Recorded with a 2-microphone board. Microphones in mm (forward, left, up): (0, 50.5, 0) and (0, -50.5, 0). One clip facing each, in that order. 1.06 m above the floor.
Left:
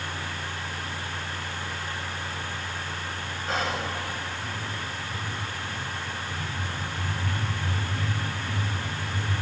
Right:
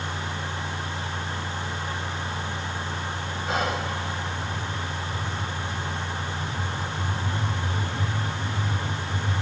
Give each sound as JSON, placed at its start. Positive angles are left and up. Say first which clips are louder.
{"t": 3.5, "sound": "whispering", "louder": "right 2 dB", "side_deg": -5, "distance_m": 1.1}